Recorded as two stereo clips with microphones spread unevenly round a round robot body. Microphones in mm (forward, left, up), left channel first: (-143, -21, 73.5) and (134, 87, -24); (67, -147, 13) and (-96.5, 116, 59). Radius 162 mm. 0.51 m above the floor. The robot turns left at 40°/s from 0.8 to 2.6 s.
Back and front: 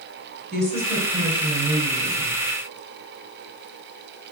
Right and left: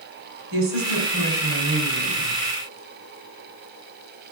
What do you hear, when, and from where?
0.5 s a woman speaking: 105° left, 2.5 m; by 2.4 s 45° left, 2.5 m